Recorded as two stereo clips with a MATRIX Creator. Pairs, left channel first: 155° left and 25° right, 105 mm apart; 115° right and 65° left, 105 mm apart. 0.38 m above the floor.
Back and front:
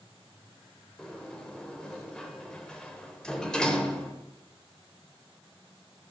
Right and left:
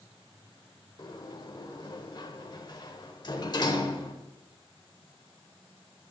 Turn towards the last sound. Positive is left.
turn(degrees=-125)